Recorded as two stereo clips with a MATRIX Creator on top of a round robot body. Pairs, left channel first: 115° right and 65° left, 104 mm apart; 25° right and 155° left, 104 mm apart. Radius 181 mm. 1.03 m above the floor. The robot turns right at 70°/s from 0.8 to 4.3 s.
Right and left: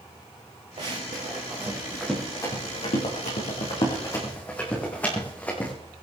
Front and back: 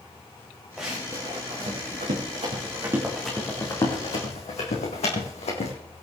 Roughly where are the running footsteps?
Left.